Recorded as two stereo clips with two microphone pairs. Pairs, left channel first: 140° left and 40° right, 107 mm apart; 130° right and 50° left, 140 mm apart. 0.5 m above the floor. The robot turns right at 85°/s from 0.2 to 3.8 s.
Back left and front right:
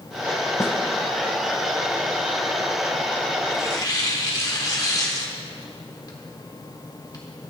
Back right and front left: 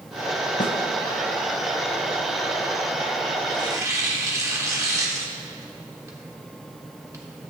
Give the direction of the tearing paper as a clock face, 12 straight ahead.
9 o'clock.